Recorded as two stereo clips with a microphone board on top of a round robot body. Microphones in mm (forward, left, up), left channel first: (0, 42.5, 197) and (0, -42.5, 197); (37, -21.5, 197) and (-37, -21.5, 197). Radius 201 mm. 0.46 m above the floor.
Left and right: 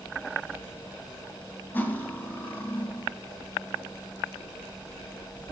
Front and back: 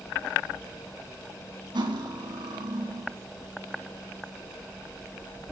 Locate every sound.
1.7 s cutlery clinking: 160° left, 3 m